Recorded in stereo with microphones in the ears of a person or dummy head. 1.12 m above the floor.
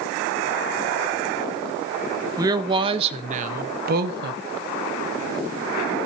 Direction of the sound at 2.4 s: 20° right (ahead or behind).